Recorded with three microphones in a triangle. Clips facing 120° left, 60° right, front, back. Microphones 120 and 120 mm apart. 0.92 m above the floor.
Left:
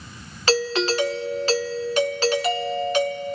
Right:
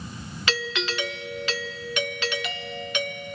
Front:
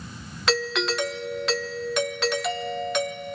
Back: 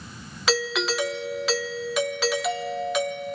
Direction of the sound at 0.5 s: 90° left.